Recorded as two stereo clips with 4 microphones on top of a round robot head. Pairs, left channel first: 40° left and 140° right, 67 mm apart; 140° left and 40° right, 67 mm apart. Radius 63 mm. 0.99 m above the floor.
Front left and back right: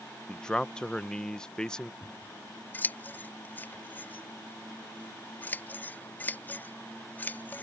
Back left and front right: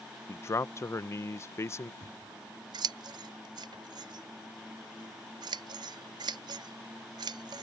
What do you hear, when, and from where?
0.3 s a man speaking: 115° left
2.0 s scissors: 25° right